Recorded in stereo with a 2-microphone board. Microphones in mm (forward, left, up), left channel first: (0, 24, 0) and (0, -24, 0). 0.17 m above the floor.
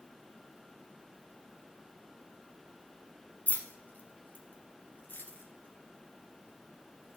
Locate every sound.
3.5 s keys jangling: 30° left (ahead or behind), 1.2 m; by 7.2 s 40° left (ahead or behind), 3 m